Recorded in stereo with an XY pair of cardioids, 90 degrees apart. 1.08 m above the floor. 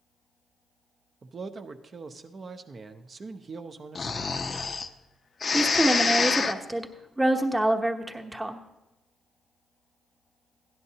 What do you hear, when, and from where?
1.2 s a man speaking: 45° right, 0.6 m
4.0 s snoring: 40° left, 0.5 m
5.5 s a woman speaking: 15° right, 0.9 m